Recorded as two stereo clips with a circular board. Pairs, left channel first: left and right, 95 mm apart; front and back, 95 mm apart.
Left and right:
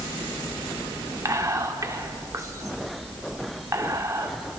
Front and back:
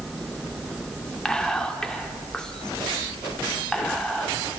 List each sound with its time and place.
1.2 s whispering: 75° right, 1.2 m